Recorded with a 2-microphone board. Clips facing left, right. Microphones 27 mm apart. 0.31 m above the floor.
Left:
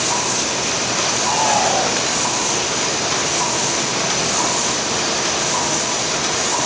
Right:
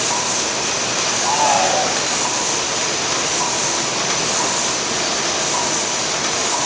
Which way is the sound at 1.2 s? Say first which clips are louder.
Right 2 dB; 15° right (ahead or behind).